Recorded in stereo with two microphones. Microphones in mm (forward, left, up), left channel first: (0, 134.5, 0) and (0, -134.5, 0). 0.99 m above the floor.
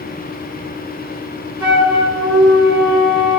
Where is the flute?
80° right, 4 m.